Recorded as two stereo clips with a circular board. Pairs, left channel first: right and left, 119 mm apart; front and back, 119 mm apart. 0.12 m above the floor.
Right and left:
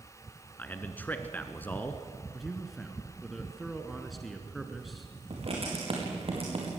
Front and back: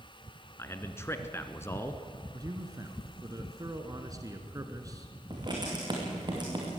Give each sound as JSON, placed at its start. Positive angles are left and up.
{"t": 0.6, "sound": "a man speaking", "azimuth_deg": -35, "distance_m": 1.2}
{"t": 2.3, "sound": "a man speaking", "azimuth_deg": 180, "distance_m": 1.3}
{"t": 5.3, "sound": "writing", "azimuth_deg": 130, "distance_m": 5.0}